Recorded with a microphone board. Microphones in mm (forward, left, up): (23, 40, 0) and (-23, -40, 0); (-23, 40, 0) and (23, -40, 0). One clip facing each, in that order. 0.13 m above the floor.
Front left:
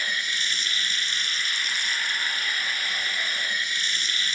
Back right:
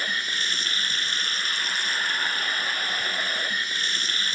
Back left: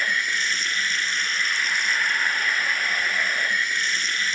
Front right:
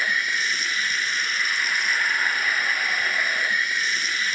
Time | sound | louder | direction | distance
0.0 | running water | back right 1 dB, even | 145° right | 0.8 m